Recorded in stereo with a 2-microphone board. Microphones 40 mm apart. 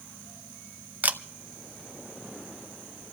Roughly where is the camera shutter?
Right.